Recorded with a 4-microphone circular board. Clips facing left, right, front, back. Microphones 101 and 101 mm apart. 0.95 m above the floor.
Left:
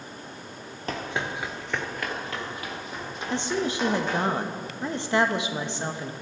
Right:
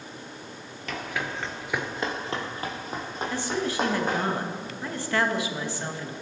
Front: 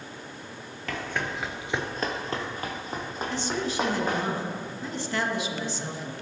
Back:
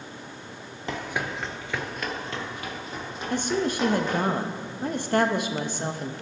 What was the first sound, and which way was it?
Running footsteps, 120° left.